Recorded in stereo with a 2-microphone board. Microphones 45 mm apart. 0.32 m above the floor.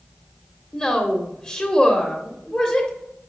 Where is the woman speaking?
20° left (ahead or behind), 0.9 m.